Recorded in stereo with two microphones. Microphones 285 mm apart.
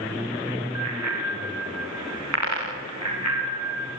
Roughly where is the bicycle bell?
Right.